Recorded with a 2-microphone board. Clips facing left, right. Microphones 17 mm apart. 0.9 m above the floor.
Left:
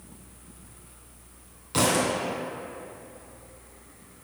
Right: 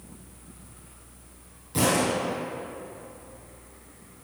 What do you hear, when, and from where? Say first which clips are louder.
1.7 s a thud: even; 45° left (ahead or behind), 2 m